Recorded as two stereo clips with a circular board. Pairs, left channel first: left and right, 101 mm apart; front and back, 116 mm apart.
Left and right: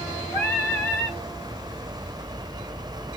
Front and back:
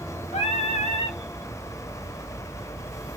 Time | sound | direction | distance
0.3 | singing | 25° left | 1.3 m